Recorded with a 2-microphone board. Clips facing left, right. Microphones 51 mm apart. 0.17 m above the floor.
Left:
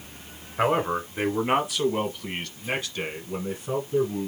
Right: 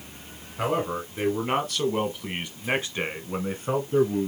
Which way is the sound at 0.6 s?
40° left (ahead or behind).